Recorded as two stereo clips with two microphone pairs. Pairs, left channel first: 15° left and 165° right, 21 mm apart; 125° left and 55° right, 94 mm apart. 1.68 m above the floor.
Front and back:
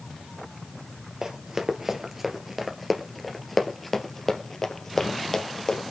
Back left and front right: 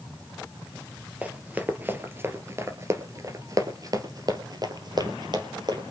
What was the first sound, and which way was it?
Running footsteps, 120° right.